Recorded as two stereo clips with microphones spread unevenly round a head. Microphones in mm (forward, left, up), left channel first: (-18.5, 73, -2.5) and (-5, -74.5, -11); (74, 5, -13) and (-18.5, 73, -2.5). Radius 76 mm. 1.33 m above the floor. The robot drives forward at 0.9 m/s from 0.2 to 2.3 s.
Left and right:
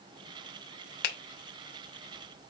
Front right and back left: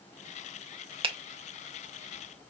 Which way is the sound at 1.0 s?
105° left.